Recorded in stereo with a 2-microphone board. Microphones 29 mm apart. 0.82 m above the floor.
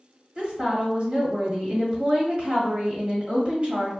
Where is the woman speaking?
40° right (ahead or behind), 1.6 m.